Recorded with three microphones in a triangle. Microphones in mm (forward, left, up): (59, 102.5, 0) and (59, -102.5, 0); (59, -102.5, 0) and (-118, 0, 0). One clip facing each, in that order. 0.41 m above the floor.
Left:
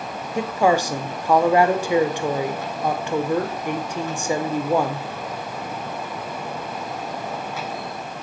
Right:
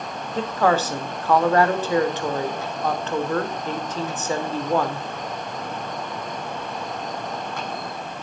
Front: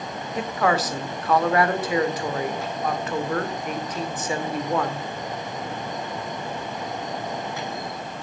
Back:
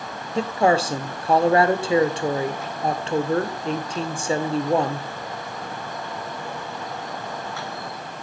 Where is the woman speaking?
150° left, 1.0 m.